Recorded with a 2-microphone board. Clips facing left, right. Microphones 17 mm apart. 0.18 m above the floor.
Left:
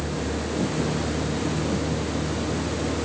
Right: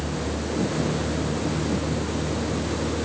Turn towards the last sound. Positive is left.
No sound to turn to.